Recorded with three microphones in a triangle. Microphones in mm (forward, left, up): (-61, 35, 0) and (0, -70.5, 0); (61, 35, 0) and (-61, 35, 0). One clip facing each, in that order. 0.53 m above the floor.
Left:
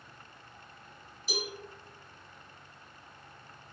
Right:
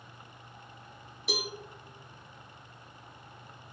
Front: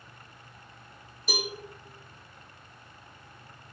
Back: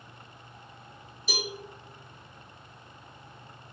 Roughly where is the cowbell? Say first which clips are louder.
Right 2 dB, front 2 dB; ahead right.